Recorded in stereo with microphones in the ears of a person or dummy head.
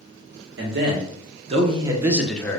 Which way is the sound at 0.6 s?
65° right (ahead or behind).